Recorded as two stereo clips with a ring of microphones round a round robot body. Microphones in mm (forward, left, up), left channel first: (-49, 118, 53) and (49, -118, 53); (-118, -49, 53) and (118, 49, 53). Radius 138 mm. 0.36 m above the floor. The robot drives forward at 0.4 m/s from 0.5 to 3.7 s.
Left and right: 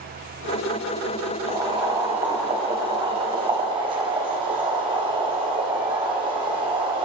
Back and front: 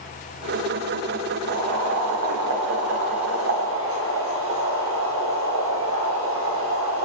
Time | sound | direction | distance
1.5 | boiling | straight ahead | 3 m